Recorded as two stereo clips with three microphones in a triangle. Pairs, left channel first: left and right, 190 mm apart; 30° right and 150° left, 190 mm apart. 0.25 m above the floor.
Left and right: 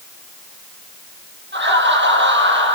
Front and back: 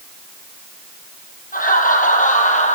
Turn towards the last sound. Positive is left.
turn(degrees=-80)